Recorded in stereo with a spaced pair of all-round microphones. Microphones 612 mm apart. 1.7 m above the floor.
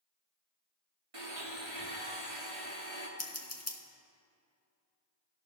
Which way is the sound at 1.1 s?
55° right (ahead or behind).